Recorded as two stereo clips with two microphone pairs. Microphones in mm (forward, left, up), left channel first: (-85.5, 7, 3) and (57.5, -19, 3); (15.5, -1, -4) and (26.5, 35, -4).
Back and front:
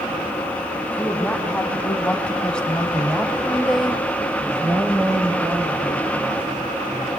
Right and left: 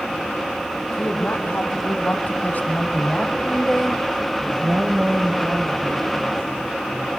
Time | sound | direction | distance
0.9 | a woman speaking | 110° right | 3 m